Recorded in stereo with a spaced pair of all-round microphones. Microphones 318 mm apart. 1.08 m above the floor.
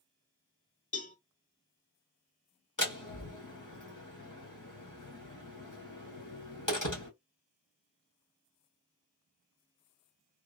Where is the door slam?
70° left (ahead or behind), 1.8 m.